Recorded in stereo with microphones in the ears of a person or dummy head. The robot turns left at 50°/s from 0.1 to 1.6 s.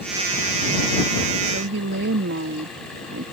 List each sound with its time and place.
1.4 s a woman speaking: 70° right (ahead or behind); by 3.2 s 75° right (ahead or behind)